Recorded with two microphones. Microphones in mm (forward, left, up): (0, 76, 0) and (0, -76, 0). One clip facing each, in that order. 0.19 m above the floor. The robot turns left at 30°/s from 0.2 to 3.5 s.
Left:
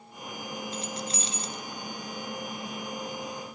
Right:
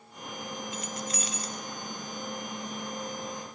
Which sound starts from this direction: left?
Keys jangling, at 0.7 s.